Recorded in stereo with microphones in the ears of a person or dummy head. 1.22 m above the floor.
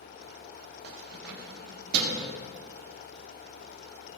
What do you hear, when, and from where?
0.8 s keys jangling: 65° right (ahead or behind), 1.8 m